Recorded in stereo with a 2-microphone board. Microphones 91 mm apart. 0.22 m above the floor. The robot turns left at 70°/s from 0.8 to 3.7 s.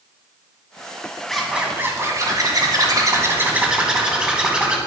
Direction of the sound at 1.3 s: 5° left.